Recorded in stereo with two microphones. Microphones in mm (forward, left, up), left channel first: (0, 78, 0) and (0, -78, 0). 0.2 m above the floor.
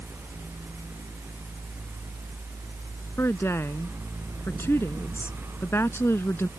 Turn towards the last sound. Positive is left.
turn(degrees=15)  # may be behind; listen again after turning